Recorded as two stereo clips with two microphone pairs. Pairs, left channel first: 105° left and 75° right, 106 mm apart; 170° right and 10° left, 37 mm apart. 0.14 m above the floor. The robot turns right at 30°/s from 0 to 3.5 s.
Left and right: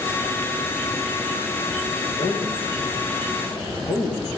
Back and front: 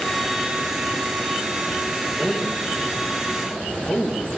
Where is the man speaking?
110° left, 8.5 m; by 4.3 s 150° left, 8.5 m.